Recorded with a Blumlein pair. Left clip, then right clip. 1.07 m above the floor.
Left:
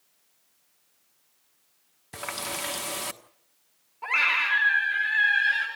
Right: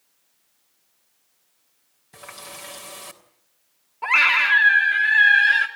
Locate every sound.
2.1 s a running tap: 65° left, 1.4 m
4.0 s a scream: 70° right, 3 m